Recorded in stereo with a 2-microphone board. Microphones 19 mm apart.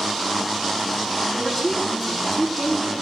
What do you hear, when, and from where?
1.3 s a woman speaking: centre (ahead or behind), 4.5 m